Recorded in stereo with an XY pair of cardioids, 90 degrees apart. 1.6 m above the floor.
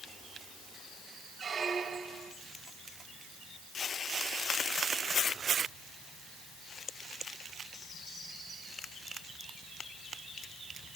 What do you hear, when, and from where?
1.4 s a squeak: 55° right, 3 m